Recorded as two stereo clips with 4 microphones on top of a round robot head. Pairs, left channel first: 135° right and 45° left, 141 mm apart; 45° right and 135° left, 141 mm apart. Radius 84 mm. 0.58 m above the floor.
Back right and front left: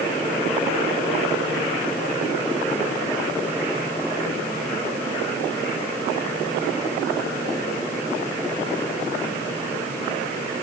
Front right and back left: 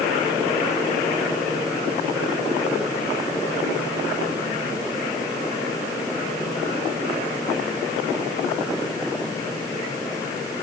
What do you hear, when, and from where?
Only background noise.